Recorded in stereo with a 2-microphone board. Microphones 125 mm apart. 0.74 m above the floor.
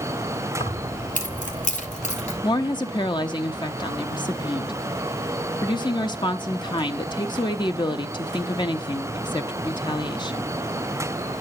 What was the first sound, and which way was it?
Keys jangling, 75° left (ahead or behind).